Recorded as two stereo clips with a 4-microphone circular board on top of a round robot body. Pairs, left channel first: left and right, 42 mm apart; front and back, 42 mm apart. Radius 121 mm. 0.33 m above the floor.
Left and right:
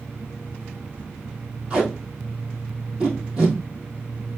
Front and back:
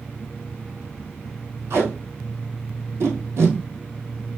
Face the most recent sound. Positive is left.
turn(degrees=-155)